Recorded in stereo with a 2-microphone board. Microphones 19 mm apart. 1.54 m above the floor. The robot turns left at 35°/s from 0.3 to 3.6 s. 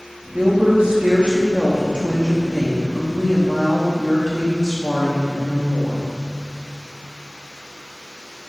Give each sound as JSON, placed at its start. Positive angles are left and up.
{"t": 0.3, "sound": "a woman speaking", "azimuth_deg": -85, "distance_m": 1.0}